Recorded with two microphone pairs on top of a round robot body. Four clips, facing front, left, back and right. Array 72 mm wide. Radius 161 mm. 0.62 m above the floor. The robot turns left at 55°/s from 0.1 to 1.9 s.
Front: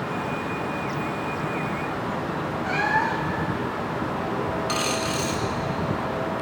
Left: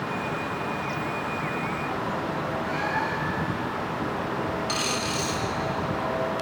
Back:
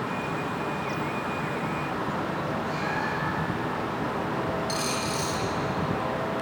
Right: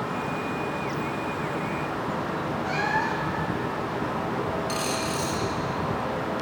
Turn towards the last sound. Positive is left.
turn(degrees=15)